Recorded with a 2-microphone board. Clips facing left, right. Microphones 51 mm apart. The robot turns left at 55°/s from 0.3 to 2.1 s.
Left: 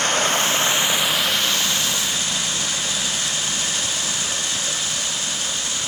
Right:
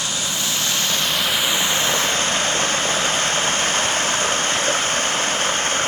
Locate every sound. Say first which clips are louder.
0.0 s running water: left 6 dB; 50° left; by 5.9 s 50° right